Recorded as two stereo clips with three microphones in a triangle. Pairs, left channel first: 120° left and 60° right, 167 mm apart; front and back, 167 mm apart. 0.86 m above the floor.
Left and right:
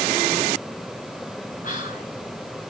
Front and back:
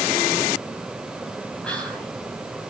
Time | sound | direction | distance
1.6 | whispering | 85° left | 6 m